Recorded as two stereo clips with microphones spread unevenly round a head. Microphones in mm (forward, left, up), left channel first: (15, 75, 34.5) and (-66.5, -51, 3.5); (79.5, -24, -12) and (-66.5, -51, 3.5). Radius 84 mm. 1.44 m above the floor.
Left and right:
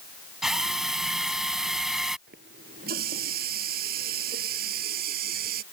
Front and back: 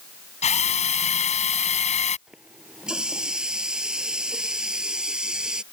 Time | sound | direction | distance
0.4 | a drill | 35° right | ?
2.3 | a running tap | 85° right | ?